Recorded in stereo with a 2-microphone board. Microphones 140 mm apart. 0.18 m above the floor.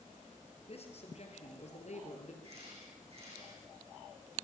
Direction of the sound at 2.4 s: 50° right (ahead or behind).